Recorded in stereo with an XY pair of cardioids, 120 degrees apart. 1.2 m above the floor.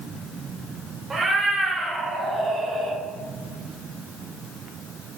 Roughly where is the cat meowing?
Ahead right.